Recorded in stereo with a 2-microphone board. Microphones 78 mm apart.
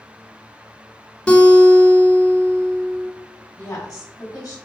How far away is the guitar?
About 1.0 m.